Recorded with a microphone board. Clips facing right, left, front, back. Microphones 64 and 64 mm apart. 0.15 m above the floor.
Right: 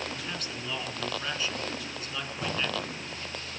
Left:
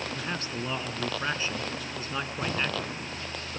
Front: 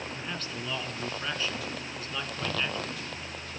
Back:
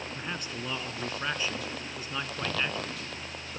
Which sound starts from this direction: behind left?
A man speaking, at 0.1 s.